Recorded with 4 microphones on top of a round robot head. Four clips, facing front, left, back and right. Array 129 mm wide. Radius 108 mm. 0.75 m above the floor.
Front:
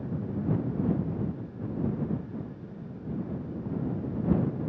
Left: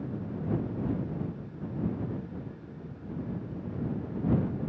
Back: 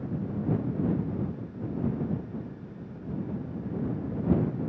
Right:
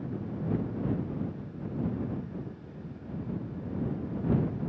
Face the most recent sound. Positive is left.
No sound to turn to.